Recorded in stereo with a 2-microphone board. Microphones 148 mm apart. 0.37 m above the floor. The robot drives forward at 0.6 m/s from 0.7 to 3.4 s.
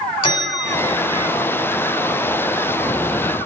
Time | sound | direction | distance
0.2 | a bell | 35° left (ahead or behind) | 1.2 m